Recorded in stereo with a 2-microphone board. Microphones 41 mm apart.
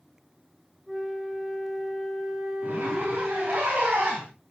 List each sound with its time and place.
0.9 s a flute: 10° right (ahead or behind), 8.5 m
2.6 s a zipper: 40° right (ahead or behind), 7.5 m